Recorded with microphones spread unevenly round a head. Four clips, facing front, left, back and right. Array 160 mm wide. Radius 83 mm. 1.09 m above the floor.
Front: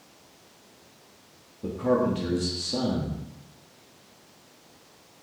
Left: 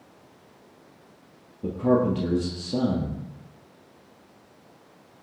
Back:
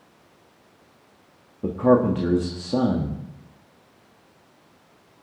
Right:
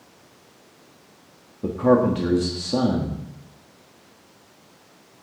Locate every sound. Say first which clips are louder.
1.6 s a man speaking: right 4 dB, back 6 dB; 135° right, 1.5 m